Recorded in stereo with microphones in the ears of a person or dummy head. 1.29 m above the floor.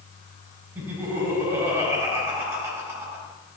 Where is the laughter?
20° right (ahead or behind), 4 m.